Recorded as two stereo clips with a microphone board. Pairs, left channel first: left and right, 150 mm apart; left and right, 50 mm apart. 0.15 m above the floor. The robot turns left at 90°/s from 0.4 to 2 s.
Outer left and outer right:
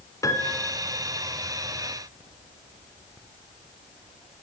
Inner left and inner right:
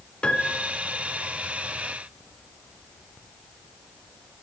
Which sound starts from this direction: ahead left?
A piano, at 0.2 s.